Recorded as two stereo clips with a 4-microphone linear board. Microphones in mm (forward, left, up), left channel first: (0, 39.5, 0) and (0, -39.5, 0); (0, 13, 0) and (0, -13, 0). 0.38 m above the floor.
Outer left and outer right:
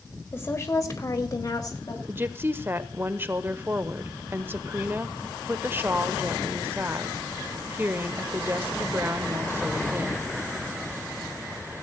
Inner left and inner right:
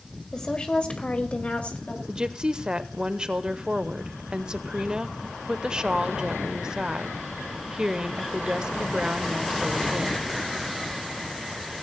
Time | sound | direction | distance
0.3 | a woman speaking | 30° left (ahead or behind) | 1.6 m
2.1 | a woman speaking | 30° right (ahead or behind) | 0.9 m